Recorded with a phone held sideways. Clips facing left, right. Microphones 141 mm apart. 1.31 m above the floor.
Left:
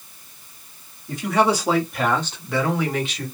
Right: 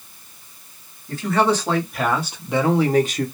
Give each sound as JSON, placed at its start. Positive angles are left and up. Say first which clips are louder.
{"t": 1.1, "sound": "a man speaking", "louder": "even", "side_deg": 15, "distance_m": 1.2}